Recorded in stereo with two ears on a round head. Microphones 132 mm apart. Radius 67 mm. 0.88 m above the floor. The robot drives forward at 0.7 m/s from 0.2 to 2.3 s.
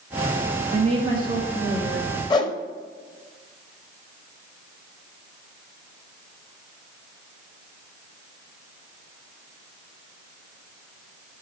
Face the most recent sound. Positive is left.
turn(degrees=25)  # may be behind; listen again after turning